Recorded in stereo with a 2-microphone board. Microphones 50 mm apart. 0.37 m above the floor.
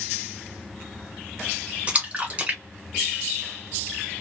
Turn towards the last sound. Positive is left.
turn(degrees=-25)  # may be behind; listen again after turning